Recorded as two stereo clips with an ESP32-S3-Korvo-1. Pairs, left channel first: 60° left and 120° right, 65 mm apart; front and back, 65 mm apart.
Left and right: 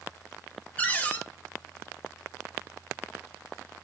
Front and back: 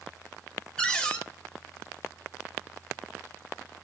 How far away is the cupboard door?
About 0.6 m.